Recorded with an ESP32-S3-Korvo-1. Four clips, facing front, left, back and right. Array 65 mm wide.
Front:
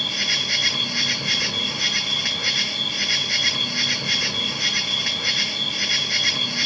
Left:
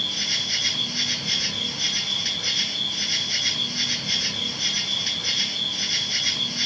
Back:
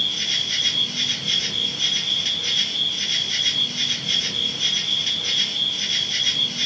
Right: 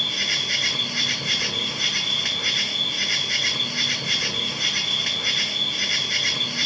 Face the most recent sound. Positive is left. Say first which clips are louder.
# right 3 dB, front 2 dB
turn(degrees=-40)